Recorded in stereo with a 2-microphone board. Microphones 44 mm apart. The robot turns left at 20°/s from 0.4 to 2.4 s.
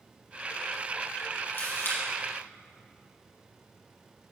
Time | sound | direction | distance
1.5 | a camera shutter | 45° left (ahead or behind) | 3.5 m